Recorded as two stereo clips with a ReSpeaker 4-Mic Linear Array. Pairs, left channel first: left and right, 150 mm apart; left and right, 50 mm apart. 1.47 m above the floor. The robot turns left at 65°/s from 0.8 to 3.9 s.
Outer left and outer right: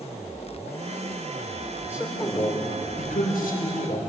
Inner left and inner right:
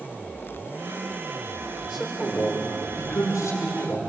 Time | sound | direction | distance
1.8 | a man speaking | 160° right | 6.5 m